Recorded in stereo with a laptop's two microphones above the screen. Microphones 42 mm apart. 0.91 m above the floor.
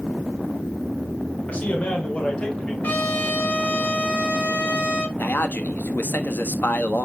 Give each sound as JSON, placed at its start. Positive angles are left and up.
{"t": 1.5, "sound": "a man speaking", "side_deg": 35, "distance_m": 3.5}
{"t": 2.8, "sound": "a trumpet", "side_deg": 45, "distance_m": 4.0}
{"t": 5.2, "sound": "a man speaking", "side_deg": 50, "distance_m": 1.4}